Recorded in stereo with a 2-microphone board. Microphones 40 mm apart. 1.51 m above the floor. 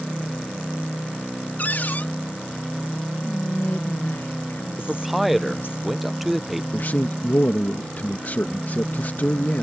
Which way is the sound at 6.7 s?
50° left (ahead or behind).